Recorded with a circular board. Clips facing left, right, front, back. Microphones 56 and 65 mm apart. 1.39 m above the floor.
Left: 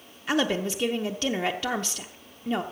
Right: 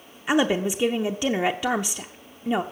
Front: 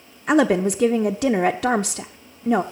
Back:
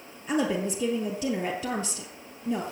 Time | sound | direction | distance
0.3 | a woman speaking | 15° right | 0.6 m